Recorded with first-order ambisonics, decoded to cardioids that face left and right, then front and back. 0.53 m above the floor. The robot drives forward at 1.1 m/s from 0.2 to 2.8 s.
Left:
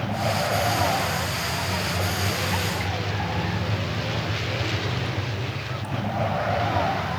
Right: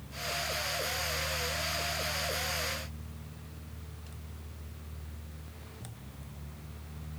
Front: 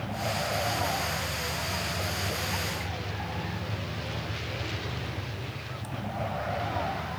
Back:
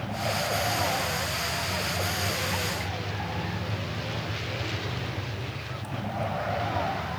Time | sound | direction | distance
0.0 | a vehicle | 95° left | ?